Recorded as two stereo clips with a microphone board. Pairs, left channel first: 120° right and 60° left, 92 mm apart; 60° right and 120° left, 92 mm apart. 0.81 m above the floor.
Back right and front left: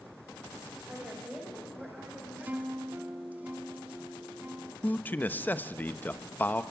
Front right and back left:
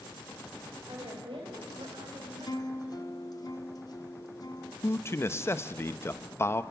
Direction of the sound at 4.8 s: 75° right.